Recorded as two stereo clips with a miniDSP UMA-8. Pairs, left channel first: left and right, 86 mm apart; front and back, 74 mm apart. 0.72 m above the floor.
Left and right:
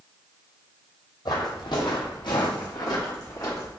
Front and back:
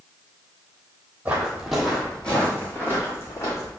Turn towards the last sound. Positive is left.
turn(degrees=45)